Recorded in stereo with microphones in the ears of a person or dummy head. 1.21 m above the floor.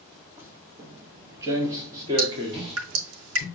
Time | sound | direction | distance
0.4 | footsteps | 10° right (ahead or behind) | 2.0 m
2.2 | dripping | 80° right | 4.5 m